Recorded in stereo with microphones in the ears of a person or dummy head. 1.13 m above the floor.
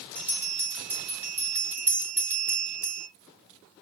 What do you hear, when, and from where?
0.1 s a bell: 10° right (ahead or behind), 2.5 m